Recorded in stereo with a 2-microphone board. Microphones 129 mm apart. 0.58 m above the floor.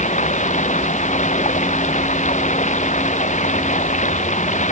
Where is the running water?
65° left (ahead or behind).